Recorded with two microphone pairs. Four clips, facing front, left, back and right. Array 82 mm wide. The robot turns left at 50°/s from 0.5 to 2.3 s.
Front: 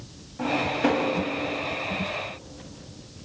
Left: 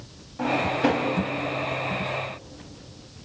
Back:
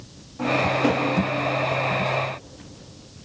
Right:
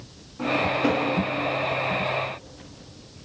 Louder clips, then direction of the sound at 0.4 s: Even, back 3 dB; 80° left.